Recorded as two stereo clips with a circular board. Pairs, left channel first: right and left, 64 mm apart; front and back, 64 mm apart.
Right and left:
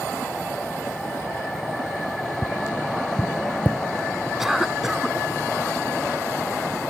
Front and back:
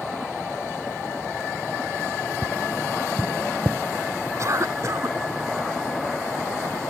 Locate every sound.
2.4 s tapping: 155° right
4.4 s a cough: 175° left